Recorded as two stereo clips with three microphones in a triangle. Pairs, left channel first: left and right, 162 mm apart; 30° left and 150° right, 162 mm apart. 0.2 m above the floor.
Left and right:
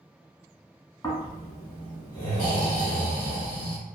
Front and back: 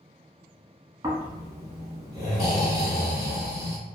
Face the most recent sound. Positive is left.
turn(degrees=145)